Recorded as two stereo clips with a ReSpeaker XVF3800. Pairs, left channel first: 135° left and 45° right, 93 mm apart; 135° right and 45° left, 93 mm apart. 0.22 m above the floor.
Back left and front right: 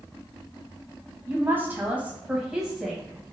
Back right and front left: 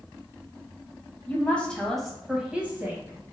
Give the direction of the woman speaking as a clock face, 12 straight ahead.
3 o'clock.